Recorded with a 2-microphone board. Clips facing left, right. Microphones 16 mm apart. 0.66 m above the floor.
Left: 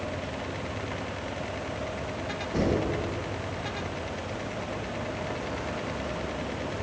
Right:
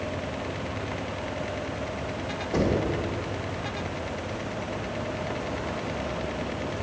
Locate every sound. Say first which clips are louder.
2.5 s knocking: right 2 dB; 65° right (ahead or behind), 1.8 m